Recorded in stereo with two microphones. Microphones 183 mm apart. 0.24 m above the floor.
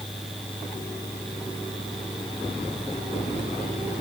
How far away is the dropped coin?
No dropped coin in this recording.